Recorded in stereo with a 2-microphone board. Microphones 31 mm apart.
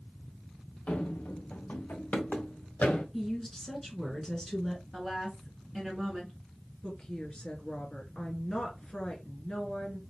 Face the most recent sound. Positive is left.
turn(degrees=35)  # may be behind; listen again after turning